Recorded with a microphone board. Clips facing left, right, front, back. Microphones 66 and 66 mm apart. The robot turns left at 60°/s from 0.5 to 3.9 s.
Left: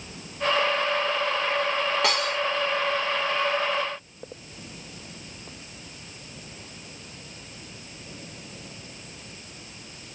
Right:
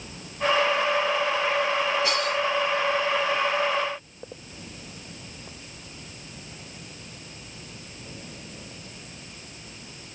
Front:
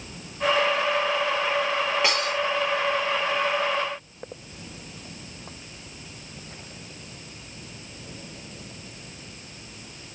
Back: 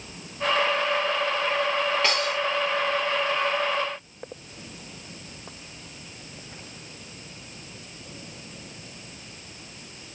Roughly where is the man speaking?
I don't hear a man speaking.